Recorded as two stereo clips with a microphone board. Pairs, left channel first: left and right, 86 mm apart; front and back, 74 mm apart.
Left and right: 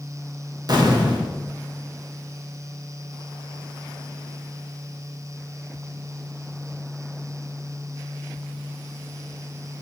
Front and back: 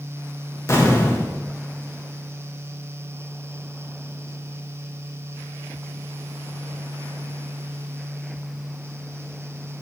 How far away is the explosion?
About 1.8 m.